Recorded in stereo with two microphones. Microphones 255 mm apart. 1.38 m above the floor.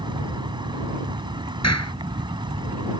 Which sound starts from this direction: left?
A clap, at 1.6 s.